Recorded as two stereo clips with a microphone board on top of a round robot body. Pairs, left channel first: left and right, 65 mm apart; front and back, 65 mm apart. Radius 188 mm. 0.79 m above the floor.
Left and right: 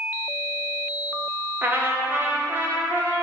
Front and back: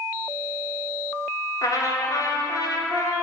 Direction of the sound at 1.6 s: 30° right.